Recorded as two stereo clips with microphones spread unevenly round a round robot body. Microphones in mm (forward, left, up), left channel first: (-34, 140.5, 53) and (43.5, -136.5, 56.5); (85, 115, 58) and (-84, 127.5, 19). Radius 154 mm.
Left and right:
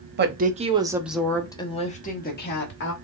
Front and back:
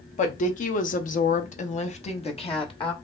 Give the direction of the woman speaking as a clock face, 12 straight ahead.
2 o'clock.